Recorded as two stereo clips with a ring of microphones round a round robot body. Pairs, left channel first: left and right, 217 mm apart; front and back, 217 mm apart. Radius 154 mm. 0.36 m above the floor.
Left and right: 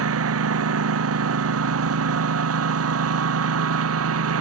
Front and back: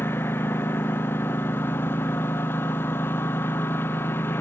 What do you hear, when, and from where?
0.0 s a lawn mower: 85° right